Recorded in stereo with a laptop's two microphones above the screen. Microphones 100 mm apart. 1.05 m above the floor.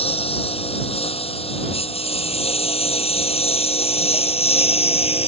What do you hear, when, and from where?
0.0 s a lawn mower: 75° left (ahead or behind); by 5.3 s 85° left